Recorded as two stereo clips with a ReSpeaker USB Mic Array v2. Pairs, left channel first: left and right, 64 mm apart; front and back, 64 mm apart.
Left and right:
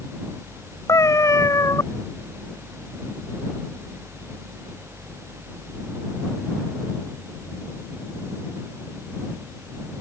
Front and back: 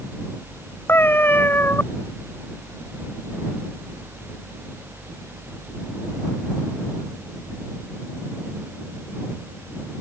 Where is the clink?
No clink in this recording.